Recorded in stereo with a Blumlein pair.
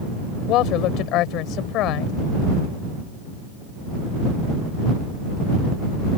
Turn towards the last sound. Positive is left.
turn(degrees=35)